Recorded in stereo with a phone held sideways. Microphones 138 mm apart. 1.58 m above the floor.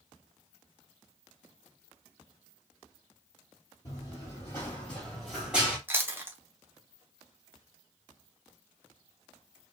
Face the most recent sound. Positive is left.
turn(degrees=-15)  # may be behind; listen again after turning